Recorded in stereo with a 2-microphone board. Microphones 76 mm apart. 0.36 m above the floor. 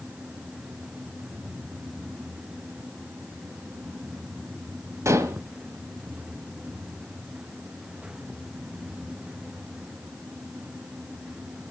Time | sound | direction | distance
5.0 | dishes clattering | 40° right (ahead or behind) | 1.3 m